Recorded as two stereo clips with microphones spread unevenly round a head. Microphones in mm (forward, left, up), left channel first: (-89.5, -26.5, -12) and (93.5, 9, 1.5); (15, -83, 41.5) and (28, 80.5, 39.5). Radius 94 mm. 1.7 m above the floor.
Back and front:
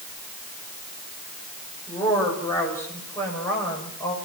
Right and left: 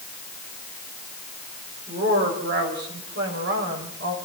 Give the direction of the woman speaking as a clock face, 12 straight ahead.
8 o'clock.